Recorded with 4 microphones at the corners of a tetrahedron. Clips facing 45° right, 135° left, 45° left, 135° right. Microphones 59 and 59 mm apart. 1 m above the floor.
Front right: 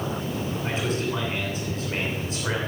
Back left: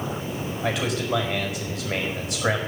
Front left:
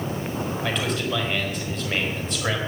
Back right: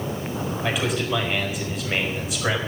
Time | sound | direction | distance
0.6 | a man speaking | 140° left | 5 m